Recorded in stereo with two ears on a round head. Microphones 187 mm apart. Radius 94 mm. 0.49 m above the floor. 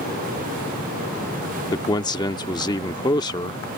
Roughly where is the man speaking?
Centre.